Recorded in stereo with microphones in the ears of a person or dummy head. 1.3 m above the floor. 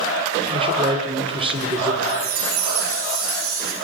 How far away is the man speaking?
About 3.5 m.